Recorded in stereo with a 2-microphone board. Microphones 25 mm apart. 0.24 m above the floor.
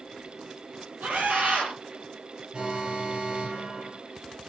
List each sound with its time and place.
1.0 s a scream: 70° right (ahead or behind), 7 m
2.5 s an alarm: 45° right (ahead or behind), 5 m